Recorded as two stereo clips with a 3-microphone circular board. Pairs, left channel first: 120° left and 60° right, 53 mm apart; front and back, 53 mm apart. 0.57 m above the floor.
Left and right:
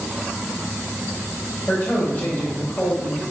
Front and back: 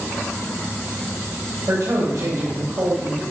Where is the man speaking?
170° left, 3 m.